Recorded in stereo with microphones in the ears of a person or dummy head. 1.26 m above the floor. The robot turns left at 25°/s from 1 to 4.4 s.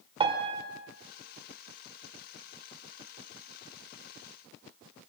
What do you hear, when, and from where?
0.2 s a piano: 30° right (ahead or behind), 2.0 m